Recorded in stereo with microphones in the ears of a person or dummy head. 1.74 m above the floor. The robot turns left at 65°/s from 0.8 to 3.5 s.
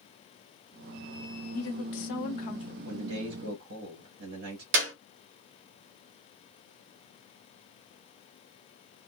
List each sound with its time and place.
1.5 s a woman speaking: 110° left, 1.2 m; by 2.8 s 30° left, 1.2 m
2.9 s a man speaking: 65° right, 1.0 m; by 4.6 s 105° right, 1.0 m
4.7 s a clap: 65° right (ahead or behind), 1.0 m